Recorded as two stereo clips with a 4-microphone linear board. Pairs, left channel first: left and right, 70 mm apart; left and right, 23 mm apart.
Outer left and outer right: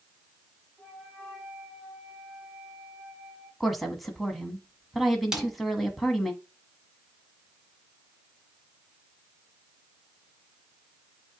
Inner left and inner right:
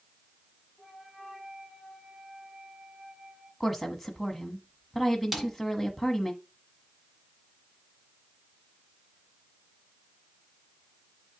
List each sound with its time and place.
0.8 s a flute: 5° right (ahead or behind), 5.5 m
3.6 s a woman speaking: centre (ahead or behind), 1.1 m
5.3 s a snare drum: 10° right (ahead or behind), 1.6 m